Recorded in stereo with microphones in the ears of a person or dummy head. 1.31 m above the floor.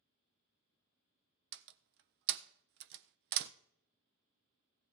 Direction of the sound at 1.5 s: 60° right (ahead or behind).